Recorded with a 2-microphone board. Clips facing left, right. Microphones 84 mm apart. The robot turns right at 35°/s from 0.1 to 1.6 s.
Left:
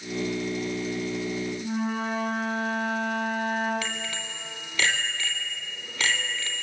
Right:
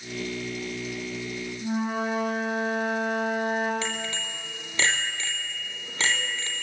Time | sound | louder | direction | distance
1.6 | a flute | right 5 dB | 20° right (ahead or behind) | 9 m
3.8 | a bicycle bell | right 2 dB | 25° right (ahead or behind) | 4 m